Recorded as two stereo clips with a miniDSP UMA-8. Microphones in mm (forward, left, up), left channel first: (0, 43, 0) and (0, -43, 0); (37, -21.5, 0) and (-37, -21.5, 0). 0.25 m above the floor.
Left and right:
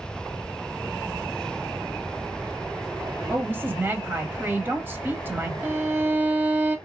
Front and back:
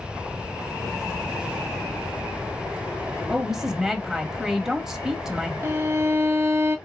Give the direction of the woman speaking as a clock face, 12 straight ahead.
3 o'clock.